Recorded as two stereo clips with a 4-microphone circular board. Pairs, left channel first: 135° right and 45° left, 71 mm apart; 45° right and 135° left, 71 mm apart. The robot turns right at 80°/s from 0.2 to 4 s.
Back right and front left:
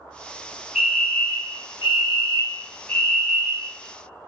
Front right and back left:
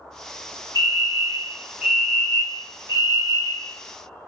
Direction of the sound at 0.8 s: 125° left.